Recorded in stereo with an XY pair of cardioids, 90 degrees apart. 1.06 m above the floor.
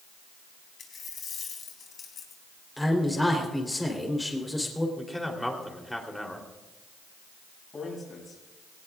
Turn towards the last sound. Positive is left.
turn(degrees=40)